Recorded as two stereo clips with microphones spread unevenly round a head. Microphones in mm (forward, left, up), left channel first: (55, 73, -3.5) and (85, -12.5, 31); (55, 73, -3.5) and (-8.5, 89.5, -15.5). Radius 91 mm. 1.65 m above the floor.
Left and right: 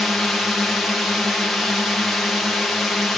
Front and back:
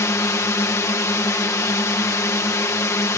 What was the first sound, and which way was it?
A drone, 25° left.